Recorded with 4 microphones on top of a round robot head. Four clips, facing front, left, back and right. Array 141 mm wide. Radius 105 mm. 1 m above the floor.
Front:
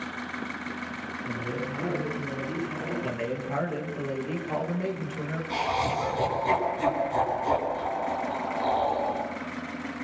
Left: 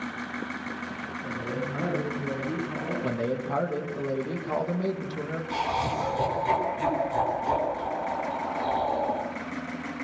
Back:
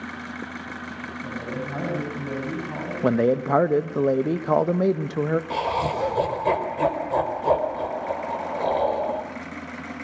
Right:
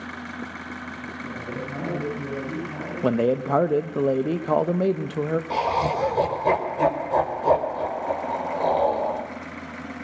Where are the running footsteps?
I don't hear running footsteps.